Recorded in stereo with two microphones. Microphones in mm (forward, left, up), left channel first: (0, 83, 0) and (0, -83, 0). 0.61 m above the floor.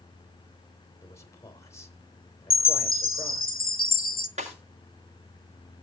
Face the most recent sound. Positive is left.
turn(degrees=-45)  # may be behind; listen again after turning